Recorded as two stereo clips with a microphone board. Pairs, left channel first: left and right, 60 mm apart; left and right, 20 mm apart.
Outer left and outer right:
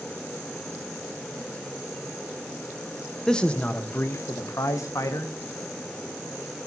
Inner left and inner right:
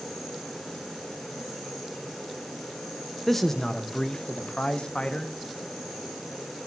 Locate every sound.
3.3 s a man speaking: 10° left (ahead or behind), 1.2 m; by 5.3 s 70° left (ahead or behind), 2 m